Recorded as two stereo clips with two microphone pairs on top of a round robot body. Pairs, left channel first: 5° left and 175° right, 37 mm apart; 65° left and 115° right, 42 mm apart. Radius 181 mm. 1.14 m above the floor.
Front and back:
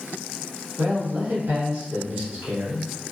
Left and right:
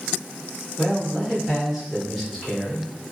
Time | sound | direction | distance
0.8 | a man speaking | 160° left | 1.7 m